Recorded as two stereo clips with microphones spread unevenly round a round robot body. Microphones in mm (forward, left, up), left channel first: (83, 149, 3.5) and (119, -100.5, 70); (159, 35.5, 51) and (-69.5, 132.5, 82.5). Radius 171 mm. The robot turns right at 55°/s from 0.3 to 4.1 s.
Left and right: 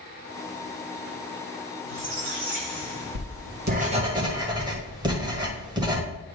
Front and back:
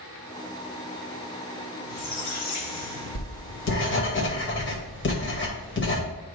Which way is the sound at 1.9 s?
85° right.